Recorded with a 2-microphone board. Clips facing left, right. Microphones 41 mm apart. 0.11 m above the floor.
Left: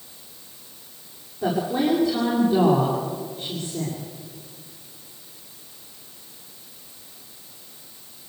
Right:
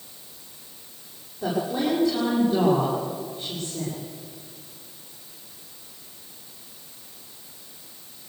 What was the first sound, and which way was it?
A woman speaking, 5° left (ahead or behind).